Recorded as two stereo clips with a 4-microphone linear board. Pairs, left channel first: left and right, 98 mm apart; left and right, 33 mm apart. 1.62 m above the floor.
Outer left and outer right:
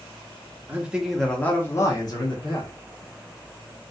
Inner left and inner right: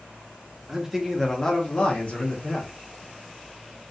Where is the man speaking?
15° right (ahead or behind), 0.7 m; by 2.7 s 55° left (ahead or behind), 1.0 m.